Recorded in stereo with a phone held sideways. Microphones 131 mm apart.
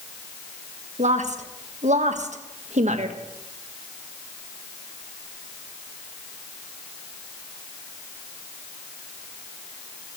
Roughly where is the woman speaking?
Right.